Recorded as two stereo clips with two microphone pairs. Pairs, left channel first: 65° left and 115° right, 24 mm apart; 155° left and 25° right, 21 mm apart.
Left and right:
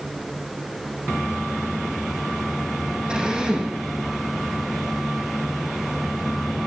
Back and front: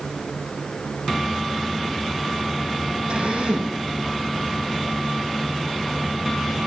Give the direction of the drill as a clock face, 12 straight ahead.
2 o'clock.